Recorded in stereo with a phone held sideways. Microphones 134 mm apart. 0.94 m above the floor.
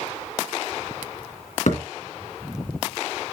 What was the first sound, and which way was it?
A thud, 70° left (ahead or behind).